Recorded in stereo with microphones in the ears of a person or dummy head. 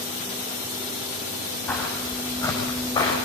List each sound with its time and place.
1.7 s footsteps: 10° left (ahead or behind), 5.5 m; by 3.1 s 25° left (ahead or behind), 6.5 m